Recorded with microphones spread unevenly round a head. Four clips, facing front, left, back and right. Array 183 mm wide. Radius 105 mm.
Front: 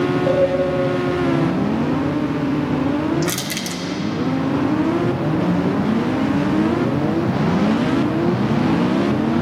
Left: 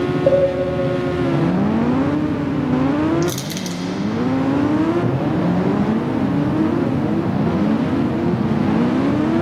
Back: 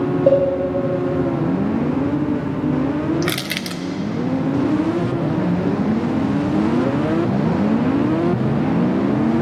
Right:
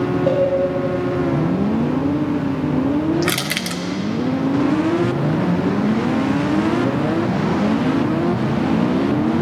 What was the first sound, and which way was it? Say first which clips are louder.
A cowbell: left 4 dB, back 3 dB; 150° left.